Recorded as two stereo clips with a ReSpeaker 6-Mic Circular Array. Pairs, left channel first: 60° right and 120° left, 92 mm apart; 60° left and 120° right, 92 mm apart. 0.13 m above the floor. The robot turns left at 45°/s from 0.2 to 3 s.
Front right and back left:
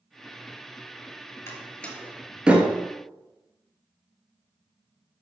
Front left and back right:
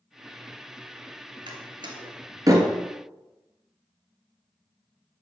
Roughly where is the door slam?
Behind right.